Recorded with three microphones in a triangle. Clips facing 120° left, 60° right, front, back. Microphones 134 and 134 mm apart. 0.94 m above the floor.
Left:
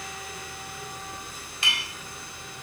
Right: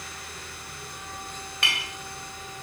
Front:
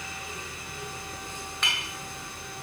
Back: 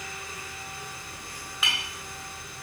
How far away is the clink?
About 1.2 m.